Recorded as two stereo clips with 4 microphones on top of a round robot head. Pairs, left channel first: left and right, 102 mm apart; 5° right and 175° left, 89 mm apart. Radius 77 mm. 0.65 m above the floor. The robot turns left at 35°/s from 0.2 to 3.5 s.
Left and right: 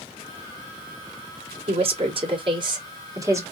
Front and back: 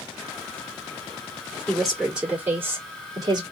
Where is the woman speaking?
90° right, 1.9 m; by 3.4 s 150° right, 1.9 m.